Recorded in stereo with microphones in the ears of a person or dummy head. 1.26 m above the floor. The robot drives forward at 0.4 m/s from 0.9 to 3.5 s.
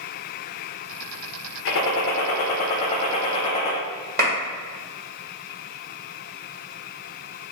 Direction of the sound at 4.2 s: 55° right (ahead or behind).